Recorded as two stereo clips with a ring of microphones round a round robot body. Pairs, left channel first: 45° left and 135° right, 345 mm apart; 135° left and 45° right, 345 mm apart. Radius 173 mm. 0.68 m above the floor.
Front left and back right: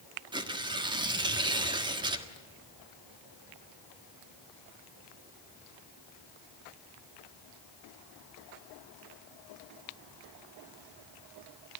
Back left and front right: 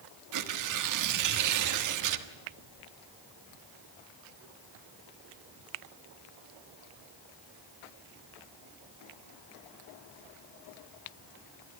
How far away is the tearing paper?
About 1.4 m.